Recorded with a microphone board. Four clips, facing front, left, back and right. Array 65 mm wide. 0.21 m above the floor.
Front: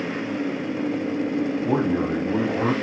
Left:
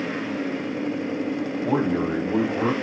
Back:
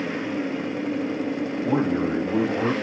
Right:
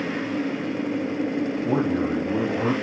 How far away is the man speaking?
About 1.0 m.